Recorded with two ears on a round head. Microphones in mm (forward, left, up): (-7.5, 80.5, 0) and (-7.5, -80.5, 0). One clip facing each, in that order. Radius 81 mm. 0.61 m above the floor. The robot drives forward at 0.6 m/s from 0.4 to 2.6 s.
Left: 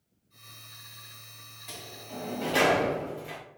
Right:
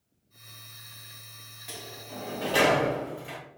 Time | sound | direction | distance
1.7 | a sliding door | 5° right (ahead or behind) | 0.6 m